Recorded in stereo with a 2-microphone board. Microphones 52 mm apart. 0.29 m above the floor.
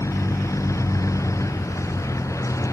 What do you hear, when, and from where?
0.0 s a vehicle: 85° left